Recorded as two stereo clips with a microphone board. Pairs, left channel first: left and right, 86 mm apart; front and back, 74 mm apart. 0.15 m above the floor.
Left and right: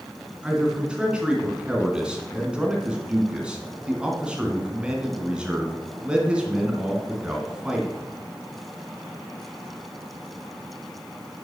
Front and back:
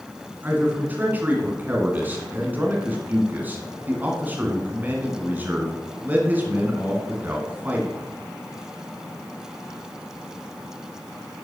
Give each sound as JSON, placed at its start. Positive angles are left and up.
{"t": 0.4, "sound": "a man speaking", "azimuth_deg": -155, "distance_m": 1.5}